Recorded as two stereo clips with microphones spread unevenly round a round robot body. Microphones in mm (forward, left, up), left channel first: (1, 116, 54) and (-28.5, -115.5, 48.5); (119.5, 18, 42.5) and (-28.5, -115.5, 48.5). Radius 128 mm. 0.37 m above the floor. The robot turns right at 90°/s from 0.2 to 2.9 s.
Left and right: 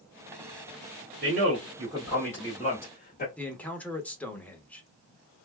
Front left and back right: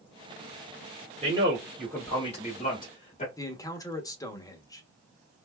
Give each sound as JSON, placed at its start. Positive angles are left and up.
{"t": 1.2, "sound": "a man speaking", "azimuth_deg": -95, "distance_m": 1.7}
{"t": 3.4, "sound": "a man speaking", "azimuth_deg": 5, "distance_m": 0.9}